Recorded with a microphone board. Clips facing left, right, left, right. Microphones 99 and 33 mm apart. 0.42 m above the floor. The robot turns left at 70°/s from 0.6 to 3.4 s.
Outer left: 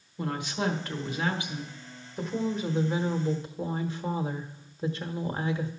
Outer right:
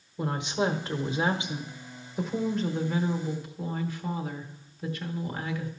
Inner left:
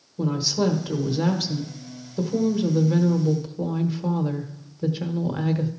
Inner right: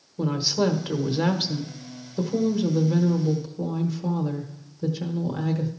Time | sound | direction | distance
0.2 | a woman speaking | 25° right (ahead or behind) | 1.1 m